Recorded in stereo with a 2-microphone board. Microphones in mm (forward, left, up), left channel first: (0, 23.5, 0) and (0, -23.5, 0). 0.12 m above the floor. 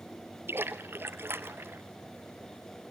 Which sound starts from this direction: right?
A splash, at 0.5 s.